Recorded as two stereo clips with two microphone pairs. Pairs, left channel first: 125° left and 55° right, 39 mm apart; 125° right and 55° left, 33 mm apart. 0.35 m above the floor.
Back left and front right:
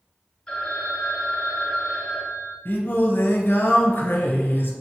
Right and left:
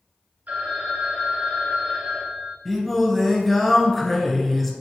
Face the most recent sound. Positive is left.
turn(degrees=155)